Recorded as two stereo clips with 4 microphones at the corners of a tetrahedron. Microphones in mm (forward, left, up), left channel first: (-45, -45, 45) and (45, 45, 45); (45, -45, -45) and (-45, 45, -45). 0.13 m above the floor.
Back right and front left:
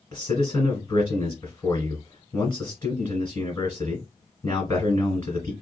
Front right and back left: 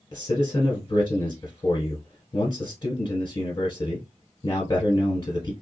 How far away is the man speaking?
About 1.4 m.